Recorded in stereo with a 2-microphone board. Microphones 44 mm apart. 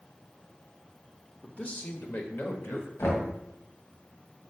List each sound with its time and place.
1.4 s a man speaking: 25° left (ahead or behind), 0.9 m; by 2.9 s 60° left (ahead or behind), 1.9 m
3.0 s knocking: 70° left (ahead or behind), 2 m